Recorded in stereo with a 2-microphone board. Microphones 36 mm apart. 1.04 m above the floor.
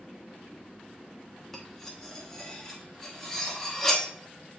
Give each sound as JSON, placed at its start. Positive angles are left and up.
{"t": 1.5, "sound": "cutlery clinking", "side_deg": 10, "distance_m": 1.1}